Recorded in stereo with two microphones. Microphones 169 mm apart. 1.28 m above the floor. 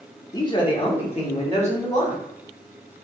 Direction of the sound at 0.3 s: 20° left (ahead or behind).